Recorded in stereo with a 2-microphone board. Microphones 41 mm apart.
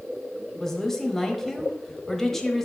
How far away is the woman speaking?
About 1.1 m.